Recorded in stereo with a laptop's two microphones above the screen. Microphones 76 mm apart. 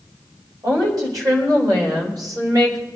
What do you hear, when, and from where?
0.6 s a woman speaking: 50° right (ahead or behind), 5 m